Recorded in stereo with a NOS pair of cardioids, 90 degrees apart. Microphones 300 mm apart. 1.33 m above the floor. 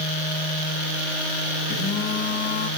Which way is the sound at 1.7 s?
50° left.